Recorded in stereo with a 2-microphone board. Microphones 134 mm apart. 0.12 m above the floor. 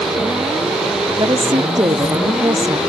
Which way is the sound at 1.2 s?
30° right (ahead or behind).